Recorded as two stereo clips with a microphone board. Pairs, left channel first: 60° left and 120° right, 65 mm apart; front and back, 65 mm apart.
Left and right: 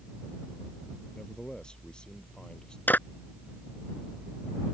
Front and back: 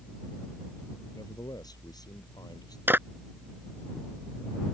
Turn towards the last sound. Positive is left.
turn(degrees=125)